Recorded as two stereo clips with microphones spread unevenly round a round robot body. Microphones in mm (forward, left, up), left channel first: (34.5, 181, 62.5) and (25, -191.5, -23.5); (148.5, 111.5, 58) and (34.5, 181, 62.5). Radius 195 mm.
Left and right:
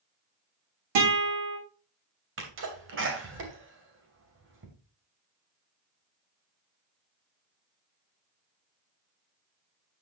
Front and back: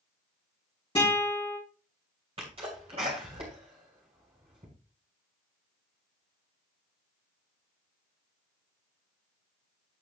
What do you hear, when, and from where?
0.9 s a guitar: 100° right, 4 m
2.4 s a sneeze: 150° right, 2.5 m